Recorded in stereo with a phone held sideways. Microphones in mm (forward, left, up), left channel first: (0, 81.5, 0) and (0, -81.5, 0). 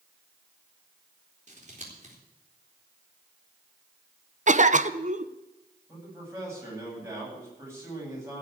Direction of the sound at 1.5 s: 50° right (ahead or behind).